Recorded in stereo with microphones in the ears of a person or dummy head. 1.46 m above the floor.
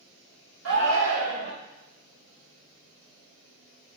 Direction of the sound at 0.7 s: 90° right.